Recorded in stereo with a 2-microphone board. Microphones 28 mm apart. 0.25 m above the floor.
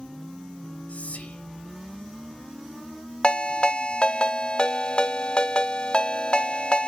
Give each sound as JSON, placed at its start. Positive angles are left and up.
{"t": 0.9, "sound": "whispering", "side_deg": 65, "distance_m": 2.5}
{"t": 3.2, "sound": "a ringtone", "side_deg": 40, "distance_m": 1.2}